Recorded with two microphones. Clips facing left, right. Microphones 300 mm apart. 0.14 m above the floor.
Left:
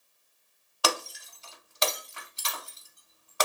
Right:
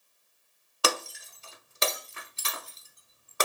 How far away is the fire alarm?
No fire alarm in this recording.